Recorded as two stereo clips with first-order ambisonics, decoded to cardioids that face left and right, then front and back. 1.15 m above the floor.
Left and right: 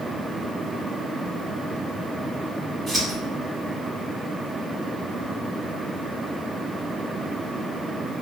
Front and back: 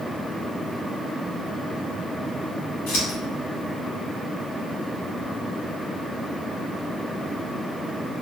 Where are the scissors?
10° right, 1.4 m.